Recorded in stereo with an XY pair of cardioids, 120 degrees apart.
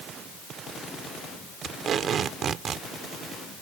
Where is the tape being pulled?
50° right.